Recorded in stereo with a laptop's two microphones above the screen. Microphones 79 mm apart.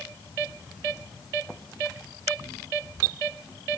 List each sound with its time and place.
Only background noise.